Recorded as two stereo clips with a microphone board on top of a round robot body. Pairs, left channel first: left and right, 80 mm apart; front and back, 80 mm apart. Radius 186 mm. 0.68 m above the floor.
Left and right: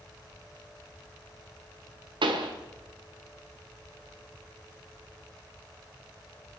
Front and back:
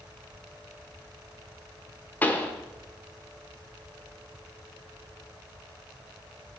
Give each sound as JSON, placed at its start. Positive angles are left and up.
{"t": 2.2, "sound": "a pop", "azimuth_deg": -70, "distance_m": 1.1}